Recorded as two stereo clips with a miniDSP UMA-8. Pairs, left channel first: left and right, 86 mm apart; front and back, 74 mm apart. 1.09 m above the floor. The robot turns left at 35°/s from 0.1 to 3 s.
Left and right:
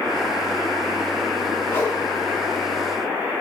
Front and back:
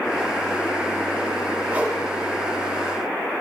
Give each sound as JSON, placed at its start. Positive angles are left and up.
{"t": 1.7, "sound": "a whoosh", "azimuth_deg": 135, "distance_m": 0.8}